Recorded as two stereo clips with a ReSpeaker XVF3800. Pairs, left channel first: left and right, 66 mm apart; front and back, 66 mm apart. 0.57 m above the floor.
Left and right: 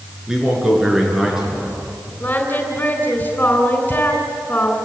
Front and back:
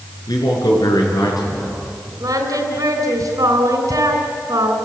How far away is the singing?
About 3.5 m.